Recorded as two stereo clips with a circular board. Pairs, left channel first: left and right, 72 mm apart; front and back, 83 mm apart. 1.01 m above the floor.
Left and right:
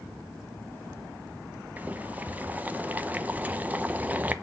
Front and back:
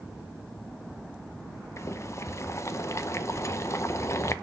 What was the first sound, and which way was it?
Boiling, 35° right.